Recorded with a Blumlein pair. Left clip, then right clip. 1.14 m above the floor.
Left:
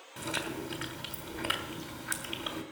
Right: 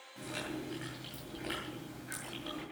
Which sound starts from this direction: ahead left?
Chewing, at 0.2 s.